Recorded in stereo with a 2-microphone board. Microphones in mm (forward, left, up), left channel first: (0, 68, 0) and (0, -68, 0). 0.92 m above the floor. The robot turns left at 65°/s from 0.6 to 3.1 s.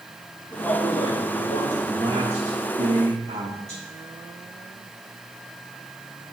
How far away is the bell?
No bell in this recording.